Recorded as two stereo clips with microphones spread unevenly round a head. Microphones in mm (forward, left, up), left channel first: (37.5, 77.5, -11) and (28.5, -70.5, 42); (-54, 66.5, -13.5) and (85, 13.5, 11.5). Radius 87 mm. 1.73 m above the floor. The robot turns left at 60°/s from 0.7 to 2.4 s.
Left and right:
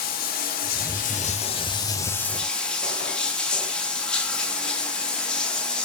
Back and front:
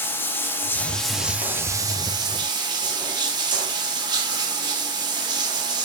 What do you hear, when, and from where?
0.0 s running water: 80° left, 1.3 m; by 5.8 s 25° right, 1.3 m